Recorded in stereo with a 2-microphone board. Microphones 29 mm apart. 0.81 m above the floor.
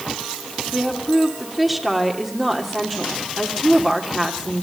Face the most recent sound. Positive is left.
turn(degrees=0)  # may be behind; listen again after turning